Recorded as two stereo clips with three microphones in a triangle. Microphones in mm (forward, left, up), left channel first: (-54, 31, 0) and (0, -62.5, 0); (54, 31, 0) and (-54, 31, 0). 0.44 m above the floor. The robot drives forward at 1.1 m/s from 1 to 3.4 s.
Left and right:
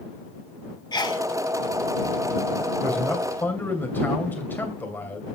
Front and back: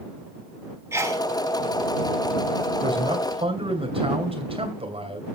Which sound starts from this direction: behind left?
A sneeze, at 0.9 s.